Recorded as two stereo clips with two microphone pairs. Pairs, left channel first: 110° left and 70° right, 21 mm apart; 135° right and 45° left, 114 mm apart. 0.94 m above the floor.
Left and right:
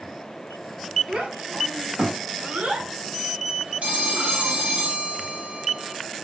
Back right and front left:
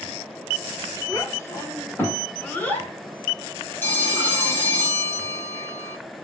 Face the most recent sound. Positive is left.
turn(degrees=-65)